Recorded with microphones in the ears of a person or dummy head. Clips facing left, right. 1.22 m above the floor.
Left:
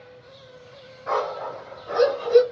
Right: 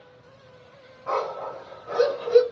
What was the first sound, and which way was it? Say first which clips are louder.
A dog barking: left 2 dB; 15° left (ahead or behind).